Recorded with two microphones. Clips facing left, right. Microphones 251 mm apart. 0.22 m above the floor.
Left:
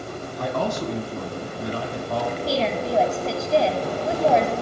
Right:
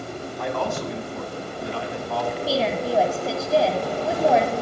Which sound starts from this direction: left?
A man speaking, at 0.4 s.